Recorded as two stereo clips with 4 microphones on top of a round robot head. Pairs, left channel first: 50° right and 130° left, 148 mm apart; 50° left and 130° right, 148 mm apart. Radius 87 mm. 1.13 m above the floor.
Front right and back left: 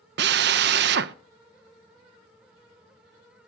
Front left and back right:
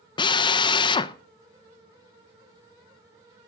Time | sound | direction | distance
0.2 | a drill | 110° left | 0.5 m